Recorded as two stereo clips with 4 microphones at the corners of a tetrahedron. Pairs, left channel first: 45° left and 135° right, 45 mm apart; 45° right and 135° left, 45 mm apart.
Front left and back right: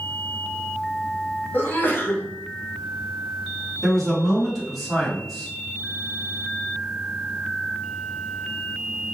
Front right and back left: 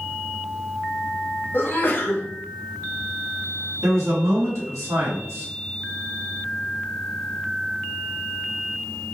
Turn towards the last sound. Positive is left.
turn(degrees=135)